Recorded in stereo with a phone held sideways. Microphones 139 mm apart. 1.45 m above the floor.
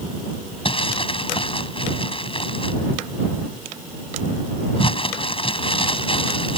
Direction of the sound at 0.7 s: 40° left (ahead or behind).